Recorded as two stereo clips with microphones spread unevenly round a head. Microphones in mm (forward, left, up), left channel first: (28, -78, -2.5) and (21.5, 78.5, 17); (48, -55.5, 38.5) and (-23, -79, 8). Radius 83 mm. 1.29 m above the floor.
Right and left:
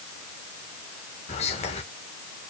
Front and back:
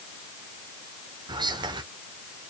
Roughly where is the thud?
I don't hear a thud.